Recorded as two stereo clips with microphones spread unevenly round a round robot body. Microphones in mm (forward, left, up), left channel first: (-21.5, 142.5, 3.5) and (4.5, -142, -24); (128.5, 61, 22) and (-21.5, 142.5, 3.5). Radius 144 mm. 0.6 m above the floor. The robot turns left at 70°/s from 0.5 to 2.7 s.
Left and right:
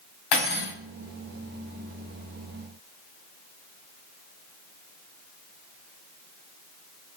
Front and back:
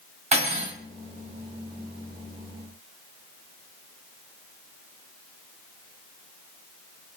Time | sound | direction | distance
0.3 | cutlery clinking | 100° left | 1.4 m